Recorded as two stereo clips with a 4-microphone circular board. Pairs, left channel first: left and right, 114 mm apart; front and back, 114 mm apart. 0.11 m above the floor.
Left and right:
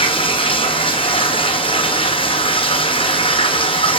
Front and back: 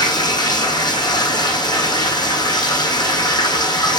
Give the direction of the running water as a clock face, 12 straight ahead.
10 o'clock.